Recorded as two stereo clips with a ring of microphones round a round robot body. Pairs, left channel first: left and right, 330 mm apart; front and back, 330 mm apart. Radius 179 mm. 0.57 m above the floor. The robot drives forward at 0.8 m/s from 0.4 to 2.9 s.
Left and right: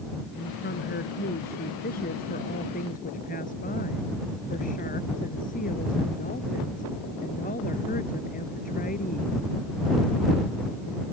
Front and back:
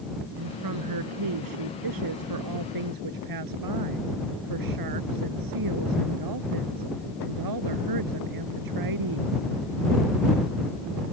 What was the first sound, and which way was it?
A woman speaking, 155° left.